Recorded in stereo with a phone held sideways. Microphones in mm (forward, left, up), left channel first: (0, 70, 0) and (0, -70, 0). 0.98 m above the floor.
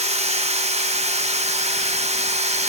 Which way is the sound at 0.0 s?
50° right (ahead or behind).